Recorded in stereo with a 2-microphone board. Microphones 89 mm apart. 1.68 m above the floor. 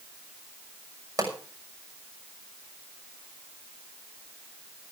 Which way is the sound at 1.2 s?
40° right (ahead or behind).